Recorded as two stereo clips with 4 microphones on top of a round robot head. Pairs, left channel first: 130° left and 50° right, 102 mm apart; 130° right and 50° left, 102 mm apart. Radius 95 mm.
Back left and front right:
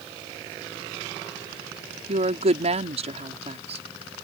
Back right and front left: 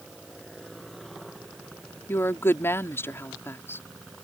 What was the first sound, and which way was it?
A woman speaking, 60° right.